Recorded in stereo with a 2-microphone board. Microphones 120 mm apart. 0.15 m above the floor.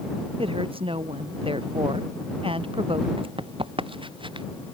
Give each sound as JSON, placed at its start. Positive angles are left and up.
{"t": 0.4, "sound": "a woman speaking", "side_deg": -50}
{"t": 3.2, "sound": "running footsteps", "side_deg": -50}